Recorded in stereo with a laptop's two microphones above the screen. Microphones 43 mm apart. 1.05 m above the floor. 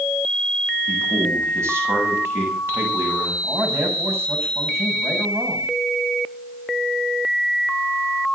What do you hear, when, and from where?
0.9 s a man speaking: 80° right, 7.5 m; by 3.3 s 75° right (ahead or behind), 9 m
3.4 s a man speaking: 80° right, 7.5 m